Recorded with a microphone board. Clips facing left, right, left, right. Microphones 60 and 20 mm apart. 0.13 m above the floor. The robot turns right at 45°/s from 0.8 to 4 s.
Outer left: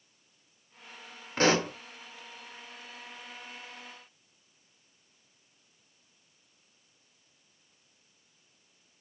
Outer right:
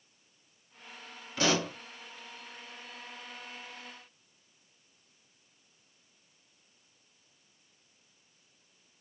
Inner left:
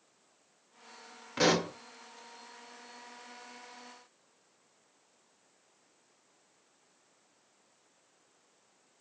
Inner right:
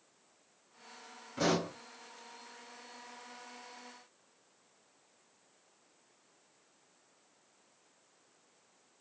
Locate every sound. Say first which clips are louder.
1.4 s a pop: outer left 4 dB, inner left 4 dB; 45° left (ahead or behind), 0.7 m; by 1.7 s 30° left (ahead or behind), 0.7 m